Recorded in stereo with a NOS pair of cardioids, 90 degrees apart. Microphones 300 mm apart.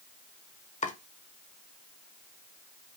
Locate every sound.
0.8 s chopping: 25° left, 1.3 m